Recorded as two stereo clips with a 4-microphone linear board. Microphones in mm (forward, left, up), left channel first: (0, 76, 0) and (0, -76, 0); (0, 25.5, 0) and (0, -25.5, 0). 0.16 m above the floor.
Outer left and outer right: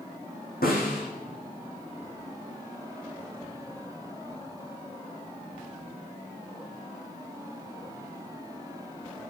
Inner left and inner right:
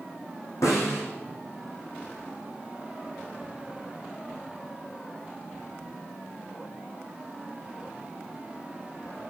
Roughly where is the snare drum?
Left.